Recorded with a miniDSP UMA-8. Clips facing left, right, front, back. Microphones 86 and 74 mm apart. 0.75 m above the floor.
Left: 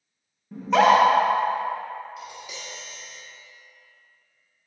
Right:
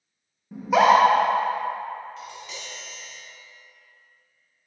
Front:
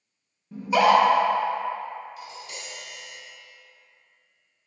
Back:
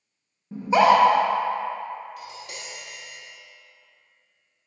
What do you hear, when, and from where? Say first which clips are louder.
0.5 s a scream: even, back 2 dB; 160° right, 1.0 m
2.2 s tapping: even, back 1 dB; 170° left, 1.6 m